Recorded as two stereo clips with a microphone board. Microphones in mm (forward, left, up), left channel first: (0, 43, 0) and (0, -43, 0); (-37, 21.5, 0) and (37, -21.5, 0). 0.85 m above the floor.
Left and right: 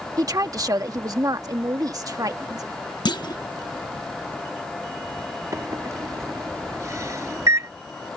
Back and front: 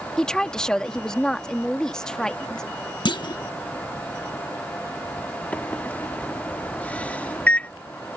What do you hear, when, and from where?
0.2 s a woman speaking: 130° right
3.0 s a clunk: 120° left
5.5 s a microwave: 135° right